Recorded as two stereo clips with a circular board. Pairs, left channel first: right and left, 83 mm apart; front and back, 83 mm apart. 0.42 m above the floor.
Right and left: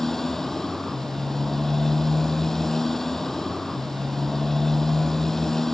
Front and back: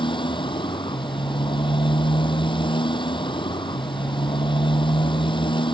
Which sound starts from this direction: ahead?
A motorcycle, at 0.0 s.